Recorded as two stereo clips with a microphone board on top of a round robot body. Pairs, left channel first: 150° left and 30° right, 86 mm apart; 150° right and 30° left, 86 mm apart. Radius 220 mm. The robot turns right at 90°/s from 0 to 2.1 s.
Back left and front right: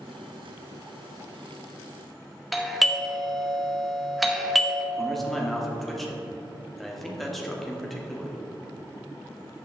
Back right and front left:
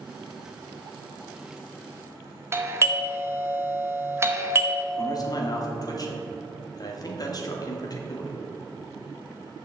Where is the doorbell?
60° left, 1.4 m.